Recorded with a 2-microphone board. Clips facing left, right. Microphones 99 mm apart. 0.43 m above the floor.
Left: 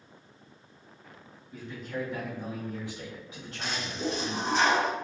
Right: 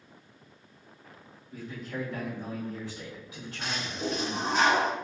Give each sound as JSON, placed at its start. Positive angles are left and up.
{"t": 1.5, "sound": "a man speaking", "side_deg": -10, "distance_m": 1.4}
{"t": 3.6, "sound": "a toilet flushing", "side_deg": 0, "distance_m": 0.8}